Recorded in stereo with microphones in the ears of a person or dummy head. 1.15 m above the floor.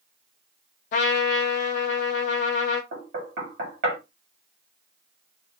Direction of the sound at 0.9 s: 35° left (ahead or behind).